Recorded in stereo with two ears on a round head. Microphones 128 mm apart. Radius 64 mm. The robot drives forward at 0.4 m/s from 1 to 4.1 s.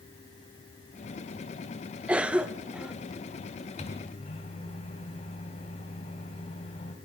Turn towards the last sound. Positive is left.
turn(degrees=45)  # may be behind; listen again after turning